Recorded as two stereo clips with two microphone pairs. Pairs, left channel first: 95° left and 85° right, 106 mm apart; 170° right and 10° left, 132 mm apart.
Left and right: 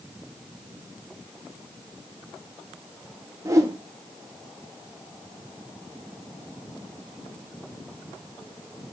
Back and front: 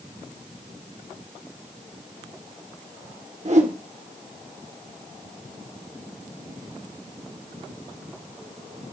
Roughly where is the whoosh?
Ahead right.